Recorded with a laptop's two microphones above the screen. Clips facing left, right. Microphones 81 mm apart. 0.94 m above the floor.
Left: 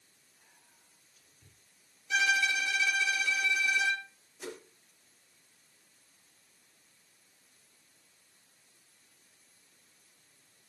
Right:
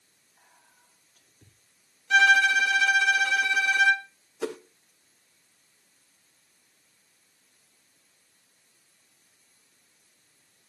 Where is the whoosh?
85° right, 0.8 m.